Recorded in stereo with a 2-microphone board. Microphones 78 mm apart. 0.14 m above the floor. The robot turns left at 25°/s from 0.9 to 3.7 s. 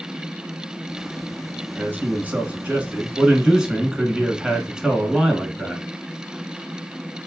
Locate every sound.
1.8 s a man speaking: 25° right (ahead or behind), 1.1 m; by 5.8 s 5° right (ahead or behind), 1.1 m